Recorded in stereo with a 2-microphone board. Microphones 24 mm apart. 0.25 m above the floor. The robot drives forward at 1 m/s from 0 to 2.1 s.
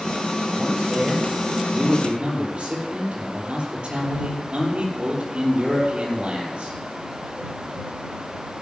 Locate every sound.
0.6 s a man speaking: 40° right (ahead or behind), 7 m; by 6.8 s 50° right (ahead or behind), 6 m